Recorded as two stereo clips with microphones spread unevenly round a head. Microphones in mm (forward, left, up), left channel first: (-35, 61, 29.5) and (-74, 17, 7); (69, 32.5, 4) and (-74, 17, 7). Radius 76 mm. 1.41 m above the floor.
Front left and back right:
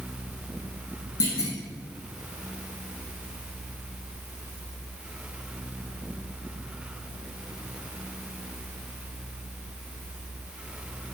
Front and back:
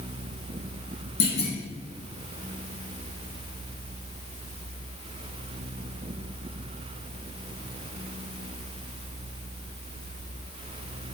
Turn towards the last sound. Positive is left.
turn(degrees=50)